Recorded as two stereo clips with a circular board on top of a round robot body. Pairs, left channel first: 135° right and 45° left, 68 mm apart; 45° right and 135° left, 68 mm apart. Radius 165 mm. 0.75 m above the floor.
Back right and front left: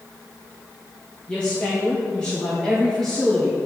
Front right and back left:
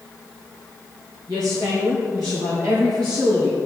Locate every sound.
1.3 s a woman speaking: 150° left, 3.5 m; by 3.5 s 145° left, 2.5 m